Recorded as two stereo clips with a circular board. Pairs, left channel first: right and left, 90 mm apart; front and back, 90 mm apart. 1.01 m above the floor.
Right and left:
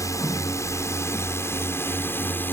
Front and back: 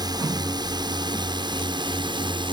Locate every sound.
0.0 s a drone: 140° right; by 2.5 s 155° right